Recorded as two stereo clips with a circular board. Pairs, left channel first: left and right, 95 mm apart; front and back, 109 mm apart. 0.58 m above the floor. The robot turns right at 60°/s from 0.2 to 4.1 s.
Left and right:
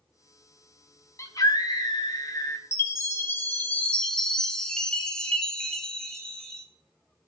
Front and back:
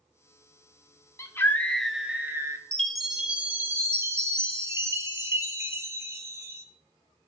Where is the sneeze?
I don't hear a sneeze.